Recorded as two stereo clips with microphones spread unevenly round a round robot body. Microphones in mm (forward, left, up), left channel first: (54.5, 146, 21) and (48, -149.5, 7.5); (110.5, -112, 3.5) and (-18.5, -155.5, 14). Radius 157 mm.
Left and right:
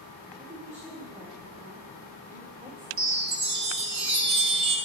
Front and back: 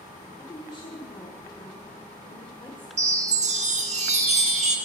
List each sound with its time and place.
0.4 s a woman speaking: 30° right, 1.3 m
3.0 s a chime: 140° right, 1.2 m